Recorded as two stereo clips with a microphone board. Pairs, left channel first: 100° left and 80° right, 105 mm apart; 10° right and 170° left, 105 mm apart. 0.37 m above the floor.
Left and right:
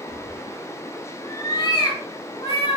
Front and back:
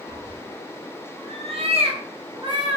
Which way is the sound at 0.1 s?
140° right.